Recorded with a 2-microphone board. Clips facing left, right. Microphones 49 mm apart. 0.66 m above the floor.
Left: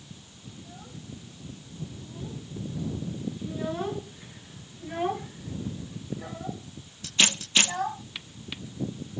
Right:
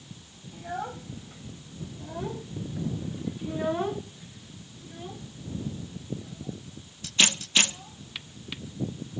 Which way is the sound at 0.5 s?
75° right (ahead or behind).